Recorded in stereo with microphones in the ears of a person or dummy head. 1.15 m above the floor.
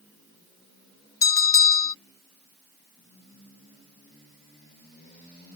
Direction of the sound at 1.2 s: 20° left (ahead or behind).